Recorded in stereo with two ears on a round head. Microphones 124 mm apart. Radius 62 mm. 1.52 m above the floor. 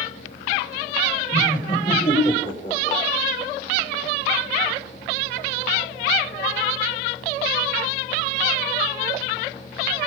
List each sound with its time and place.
1.3 s laughter: 35° left (ahead or behind), 7 m; by 3.0 s 25° left (ahead or behind), 5.5 m